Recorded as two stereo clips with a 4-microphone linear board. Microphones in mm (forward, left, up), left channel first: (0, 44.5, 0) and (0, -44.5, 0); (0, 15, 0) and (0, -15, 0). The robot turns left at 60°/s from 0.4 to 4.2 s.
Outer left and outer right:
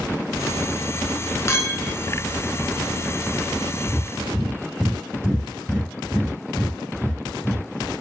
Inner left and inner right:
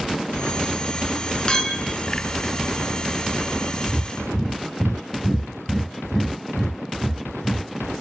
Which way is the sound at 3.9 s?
25° left (ahead or behind).